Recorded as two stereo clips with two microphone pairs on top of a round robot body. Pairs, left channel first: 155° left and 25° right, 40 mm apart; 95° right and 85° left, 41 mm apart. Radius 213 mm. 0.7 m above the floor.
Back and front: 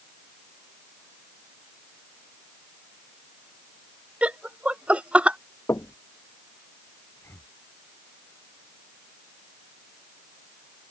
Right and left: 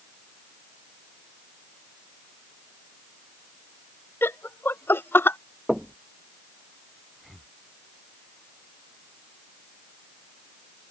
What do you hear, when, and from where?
4.2 s laughter: 80° right
5.7 s knocking: 170° left
7.2 s breathing: 175° left